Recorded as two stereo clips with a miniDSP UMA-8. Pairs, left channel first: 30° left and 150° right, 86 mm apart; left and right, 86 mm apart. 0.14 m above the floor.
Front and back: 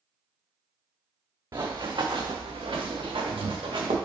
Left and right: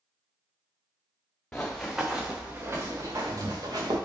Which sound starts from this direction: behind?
Running footsteps, at 1.5 s.